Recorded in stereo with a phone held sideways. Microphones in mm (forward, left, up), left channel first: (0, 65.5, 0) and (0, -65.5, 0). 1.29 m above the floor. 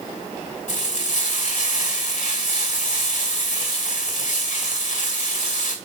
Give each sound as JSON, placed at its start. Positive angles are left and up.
{"t": 0.7, "sound": "frying", "side_deg": 70, "distance_m": 2.5}